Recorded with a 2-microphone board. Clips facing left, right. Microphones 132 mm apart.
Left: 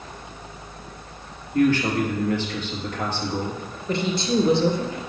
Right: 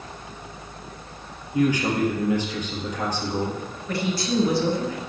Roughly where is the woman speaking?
Left.